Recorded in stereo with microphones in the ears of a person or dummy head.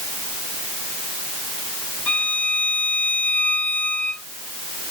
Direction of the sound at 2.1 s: 10° left (ahead or behind).